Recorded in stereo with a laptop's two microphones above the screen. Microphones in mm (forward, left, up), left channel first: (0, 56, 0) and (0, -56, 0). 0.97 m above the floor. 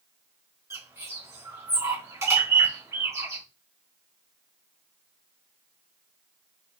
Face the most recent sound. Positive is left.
turn(degrees=-25)  # may be behind; listen again after turning